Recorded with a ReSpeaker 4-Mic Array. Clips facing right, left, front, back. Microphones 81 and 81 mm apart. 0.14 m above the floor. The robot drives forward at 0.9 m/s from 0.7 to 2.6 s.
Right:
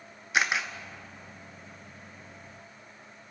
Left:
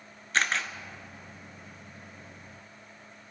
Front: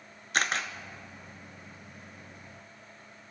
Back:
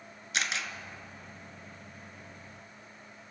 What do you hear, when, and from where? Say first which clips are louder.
0.3 s a camera shutter: right 1 dB, front 5 dB; 15° right, 0.8 m